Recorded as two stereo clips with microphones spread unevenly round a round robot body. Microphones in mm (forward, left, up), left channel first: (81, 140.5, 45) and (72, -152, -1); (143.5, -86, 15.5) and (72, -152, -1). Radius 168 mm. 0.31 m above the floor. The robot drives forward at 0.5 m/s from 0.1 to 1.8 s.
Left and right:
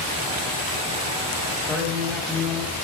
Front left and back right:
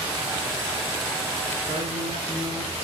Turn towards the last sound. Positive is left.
turn(degrees=175)